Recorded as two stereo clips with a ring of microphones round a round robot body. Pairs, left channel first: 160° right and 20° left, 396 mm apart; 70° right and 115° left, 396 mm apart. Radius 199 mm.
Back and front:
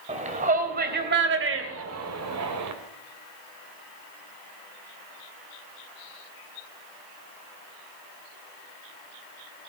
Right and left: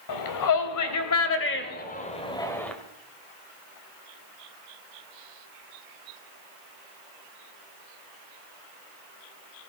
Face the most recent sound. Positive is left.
turn(degrees=20)